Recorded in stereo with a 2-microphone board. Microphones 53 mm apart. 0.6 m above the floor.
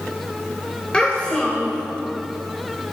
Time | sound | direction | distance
0.9 | a child speaking | 20° left (ahead or behind) | 1.5 m